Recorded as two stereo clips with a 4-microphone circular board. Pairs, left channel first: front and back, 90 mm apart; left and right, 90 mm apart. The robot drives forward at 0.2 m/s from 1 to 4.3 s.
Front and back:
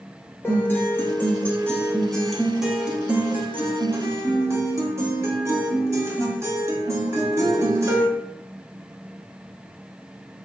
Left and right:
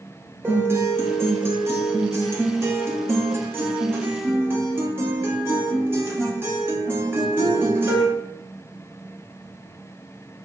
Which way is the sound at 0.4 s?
50° right.